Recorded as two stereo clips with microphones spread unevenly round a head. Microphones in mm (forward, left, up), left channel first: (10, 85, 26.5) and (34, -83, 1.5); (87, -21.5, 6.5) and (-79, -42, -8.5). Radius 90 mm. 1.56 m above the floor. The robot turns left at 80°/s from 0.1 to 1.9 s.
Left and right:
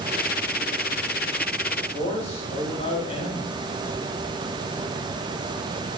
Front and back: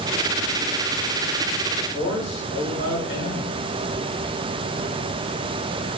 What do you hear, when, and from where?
1.8 s a man speaking: 50° left, 3 m; by 3.5 s 40° left, 3 m